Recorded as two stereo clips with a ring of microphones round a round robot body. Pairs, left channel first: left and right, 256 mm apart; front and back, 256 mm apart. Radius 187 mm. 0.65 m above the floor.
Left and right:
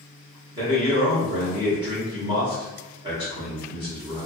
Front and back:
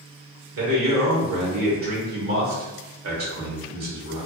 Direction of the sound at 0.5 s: 160° right.